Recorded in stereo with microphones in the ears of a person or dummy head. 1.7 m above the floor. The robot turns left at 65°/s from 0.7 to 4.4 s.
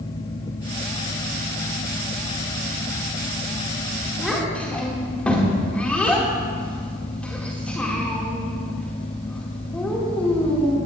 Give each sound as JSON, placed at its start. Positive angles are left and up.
{"t": 4.2, "sound": "a child speaking", "side_deg": -5, "distance_m": 1.9}